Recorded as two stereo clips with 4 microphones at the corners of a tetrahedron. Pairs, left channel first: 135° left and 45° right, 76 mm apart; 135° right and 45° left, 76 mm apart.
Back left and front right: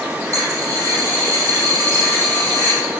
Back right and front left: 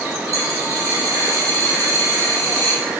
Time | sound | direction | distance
0.3 | a dropped coin | 5° left | 3.5 m